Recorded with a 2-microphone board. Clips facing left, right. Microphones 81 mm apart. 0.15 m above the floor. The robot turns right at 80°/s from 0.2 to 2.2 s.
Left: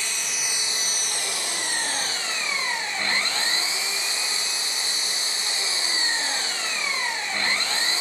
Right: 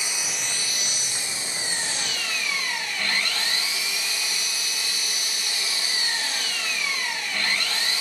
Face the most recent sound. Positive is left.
turn(degrees=150)